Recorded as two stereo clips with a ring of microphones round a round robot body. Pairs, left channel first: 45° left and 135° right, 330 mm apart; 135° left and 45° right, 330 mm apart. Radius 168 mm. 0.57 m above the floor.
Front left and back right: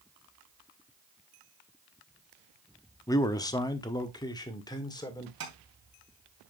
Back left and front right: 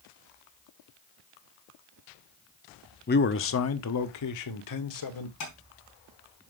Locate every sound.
3.1 s a man speaking: 115° left, 0.8 m; by 5.3 s 120° left, 1.8 m
5.4 s tapping: 175° left, 4.5 m